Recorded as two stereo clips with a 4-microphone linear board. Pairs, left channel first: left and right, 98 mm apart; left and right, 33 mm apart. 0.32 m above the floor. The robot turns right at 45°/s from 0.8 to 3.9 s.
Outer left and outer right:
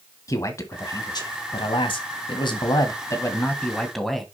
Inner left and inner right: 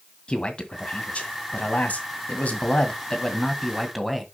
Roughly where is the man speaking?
Ahead left.